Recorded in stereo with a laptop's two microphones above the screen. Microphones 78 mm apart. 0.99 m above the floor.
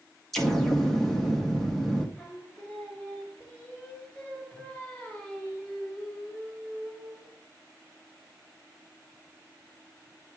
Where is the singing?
20° left (ahead or behind), 3 m.